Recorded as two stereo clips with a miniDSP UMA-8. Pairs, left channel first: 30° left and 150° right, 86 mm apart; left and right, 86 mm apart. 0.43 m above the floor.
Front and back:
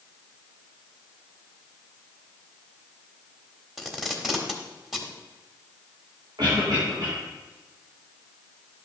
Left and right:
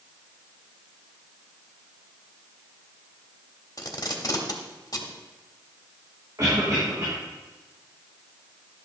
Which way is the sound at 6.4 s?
130° right.